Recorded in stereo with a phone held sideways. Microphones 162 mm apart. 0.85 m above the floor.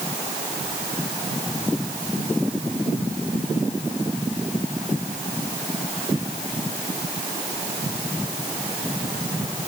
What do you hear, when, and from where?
Only background noise.